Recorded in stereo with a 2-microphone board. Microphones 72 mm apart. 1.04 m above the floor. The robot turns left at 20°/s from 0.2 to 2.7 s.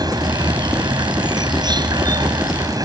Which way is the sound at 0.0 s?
70° right.